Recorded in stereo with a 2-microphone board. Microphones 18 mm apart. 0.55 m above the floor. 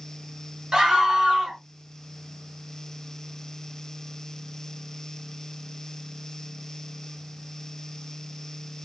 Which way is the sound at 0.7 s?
45° right (ahead or behind).